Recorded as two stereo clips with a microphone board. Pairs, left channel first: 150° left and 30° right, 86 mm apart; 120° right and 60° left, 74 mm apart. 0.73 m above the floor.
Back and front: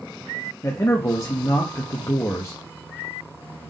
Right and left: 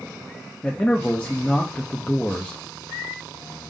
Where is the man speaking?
175° left, 0.5 m.